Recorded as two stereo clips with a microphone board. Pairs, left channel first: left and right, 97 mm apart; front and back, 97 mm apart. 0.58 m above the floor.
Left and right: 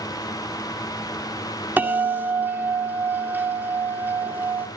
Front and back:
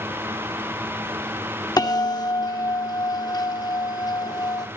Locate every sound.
1.8 s a bell: 25° right, 1.8 m